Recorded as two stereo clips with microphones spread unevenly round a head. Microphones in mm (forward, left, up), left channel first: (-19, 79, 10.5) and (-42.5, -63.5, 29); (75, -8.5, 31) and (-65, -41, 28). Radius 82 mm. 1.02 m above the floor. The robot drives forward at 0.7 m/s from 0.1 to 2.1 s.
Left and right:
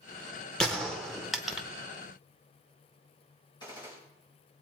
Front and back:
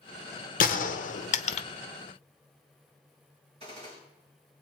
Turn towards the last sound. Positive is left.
turn(degrees=140)